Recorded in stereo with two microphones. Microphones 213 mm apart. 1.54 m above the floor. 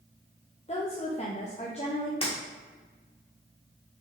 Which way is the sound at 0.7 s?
30° left (ahead or behind).